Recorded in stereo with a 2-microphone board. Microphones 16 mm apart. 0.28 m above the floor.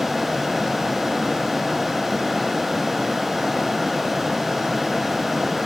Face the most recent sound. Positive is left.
No sound to turn to.